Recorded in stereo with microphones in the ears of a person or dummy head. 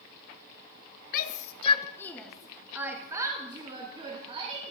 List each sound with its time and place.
1.1 s a shout: 45° left (ahead or behind), 0.8 m; by 4.7 s 35° right (ahead or behind), 2 m